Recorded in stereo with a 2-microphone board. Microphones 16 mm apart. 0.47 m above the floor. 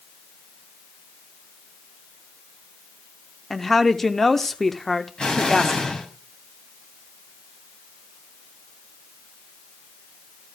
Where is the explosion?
75° left (ahead or behind), 3 m.